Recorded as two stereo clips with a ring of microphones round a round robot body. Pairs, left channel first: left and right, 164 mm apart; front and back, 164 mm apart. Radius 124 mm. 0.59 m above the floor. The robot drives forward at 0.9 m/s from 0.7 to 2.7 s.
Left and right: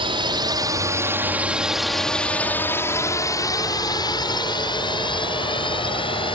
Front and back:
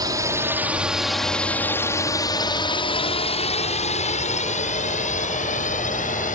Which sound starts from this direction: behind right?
A drone, at 0.0 s.